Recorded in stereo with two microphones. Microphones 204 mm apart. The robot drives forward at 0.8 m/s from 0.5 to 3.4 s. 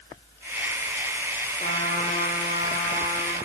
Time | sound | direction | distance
1.6 | a trumpet | 35° left (ahead or behind) | 5.5 m